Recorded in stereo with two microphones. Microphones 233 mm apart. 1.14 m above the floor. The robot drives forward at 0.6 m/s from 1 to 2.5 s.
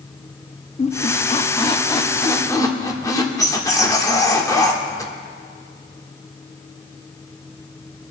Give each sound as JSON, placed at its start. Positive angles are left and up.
{"t": 0.8, "sound": "a squeak", "side_deg": 30, "distance_m": 0.6}